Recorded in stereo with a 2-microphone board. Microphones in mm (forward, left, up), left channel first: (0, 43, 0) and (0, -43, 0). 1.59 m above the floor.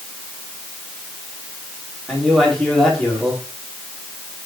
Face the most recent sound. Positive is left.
turn(degrees=5)  # may be behind; listen again after turning